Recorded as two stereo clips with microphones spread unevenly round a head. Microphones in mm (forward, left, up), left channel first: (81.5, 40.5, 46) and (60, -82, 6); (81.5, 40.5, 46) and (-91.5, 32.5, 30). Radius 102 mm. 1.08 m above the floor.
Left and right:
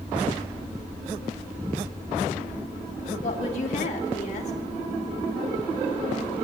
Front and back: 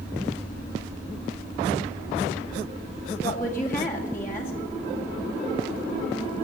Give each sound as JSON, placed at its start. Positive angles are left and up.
{"t": 3.2, "sound": "a woman speaking", "azimuth_deg": 80, "distance_m": 2.0}